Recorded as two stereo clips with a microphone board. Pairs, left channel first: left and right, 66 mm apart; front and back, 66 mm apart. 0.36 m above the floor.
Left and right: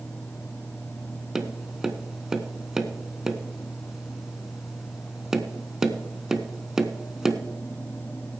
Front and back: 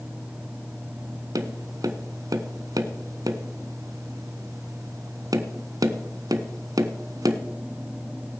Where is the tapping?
170° right, 0.7 m.